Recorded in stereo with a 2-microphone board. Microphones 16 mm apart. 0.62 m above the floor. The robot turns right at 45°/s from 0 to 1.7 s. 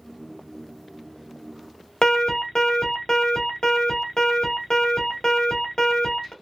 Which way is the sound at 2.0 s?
55° left (ahead or behind).